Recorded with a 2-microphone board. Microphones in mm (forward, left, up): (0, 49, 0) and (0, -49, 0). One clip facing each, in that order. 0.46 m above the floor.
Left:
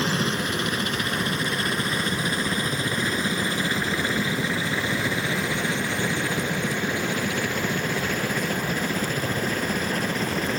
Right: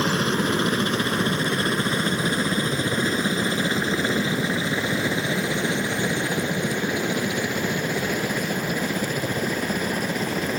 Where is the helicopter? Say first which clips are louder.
Right 3 dB; 35° right (ahead or behind); by 10.6 s 10° right (ahead or behind).